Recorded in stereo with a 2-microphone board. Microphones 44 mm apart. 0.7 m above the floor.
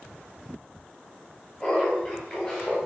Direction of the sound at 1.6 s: 20° left (ahead or behind).